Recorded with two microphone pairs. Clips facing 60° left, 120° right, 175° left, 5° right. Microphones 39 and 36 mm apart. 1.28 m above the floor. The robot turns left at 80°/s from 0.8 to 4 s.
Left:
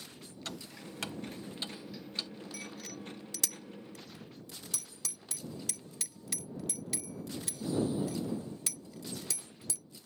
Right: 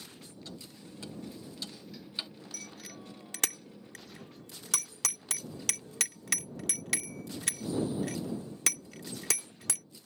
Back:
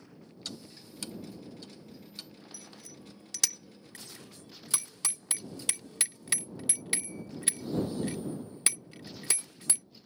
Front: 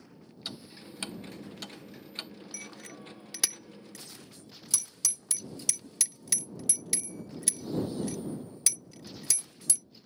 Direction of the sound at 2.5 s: 10° right.